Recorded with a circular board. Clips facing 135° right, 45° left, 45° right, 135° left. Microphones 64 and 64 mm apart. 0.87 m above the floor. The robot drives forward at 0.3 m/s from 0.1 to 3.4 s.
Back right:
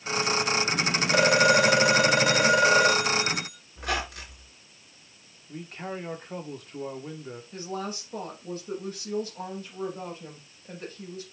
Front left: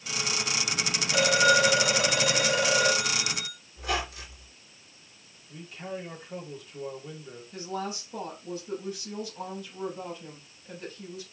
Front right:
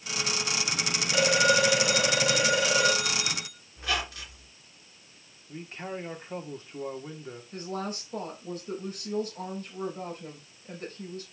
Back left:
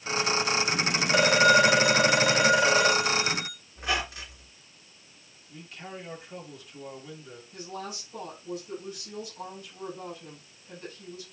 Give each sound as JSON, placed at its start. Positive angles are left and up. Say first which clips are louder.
{"t": 1.1, "sound": "a phone ringing", "louder": "back right 2 dB, back left 3 dB", "azimuth_deg": -175, "distance_m": 1.7}
{"t": 3.8, "sound": "a squeak", "louder": "back right 1 dB, back left 1 dB", "azimuth_deg": -160, "distance_m": 3.0}
{"t": 5.5, "sound": "a man speaking", "louder": "back right 2 dB, front right 5 dB", "azimuth_deg": -100, "distance_m": 2.0}
{"t": 7.5, "sound": "a woman speaking", "louder": "front left 1 dB, front right 4 dB", "azimuth_deg": -90, "distance_m": 4.5}